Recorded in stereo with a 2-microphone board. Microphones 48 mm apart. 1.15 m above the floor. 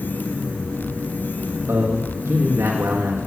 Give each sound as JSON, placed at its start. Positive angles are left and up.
{"t": 1.7, "sound": "a man speaking", "side_deg": -70, "distance_m": 1.4}